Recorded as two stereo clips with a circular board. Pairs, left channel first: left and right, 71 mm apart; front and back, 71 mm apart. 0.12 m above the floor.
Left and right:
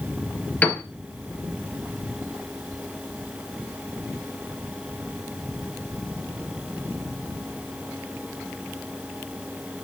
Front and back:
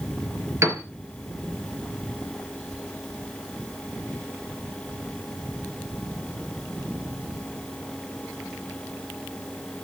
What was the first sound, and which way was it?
A piano, 155° left.